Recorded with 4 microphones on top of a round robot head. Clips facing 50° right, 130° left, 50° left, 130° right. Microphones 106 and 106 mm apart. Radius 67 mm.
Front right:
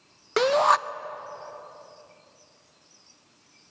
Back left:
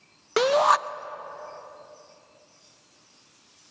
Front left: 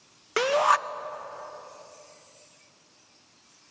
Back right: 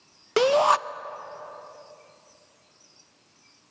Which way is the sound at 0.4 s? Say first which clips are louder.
Even, back right 3 dB; 150° right.